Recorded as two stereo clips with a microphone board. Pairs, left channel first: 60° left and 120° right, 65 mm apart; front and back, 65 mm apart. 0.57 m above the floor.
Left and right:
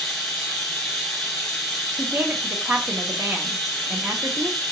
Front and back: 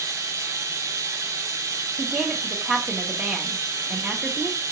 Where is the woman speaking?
110° right, 0.9 m.